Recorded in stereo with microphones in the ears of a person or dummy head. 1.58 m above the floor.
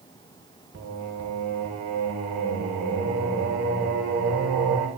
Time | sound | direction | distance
0.7 | singing | 65° right (ahead or behind) | 1.2 m